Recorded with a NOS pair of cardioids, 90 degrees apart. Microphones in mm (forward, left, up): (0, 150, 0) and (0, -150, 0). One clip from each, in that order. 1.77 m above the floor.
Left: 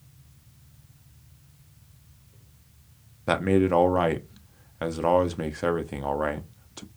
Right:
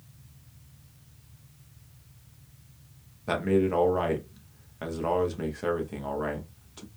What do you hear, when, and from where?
3.3 s a man speaking: 35° left, 0.9 m